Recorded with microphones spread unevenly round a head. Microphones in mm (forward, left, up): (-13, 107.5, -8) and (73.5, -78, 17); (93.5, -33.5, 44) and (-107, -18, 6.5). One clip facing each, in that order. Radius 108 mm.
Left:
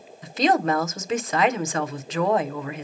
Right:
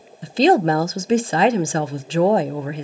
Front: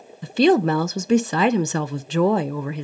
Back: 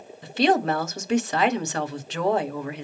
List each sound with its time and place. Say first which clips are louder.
0.2 s a woman speaking: right 6 dB, front 5 dB; 5° right, 0.5 m